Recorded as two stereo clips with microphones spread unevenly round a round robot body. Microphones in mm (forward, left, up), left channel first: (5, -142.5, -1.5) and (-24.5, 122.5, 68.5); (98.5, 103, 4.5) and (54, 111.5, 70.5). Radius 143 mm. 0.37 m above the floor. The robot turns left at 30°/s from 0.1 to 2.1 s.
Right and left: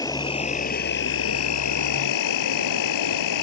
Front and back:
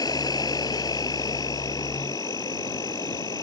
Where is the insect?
Straight ahead; by 3.4 s 60° right.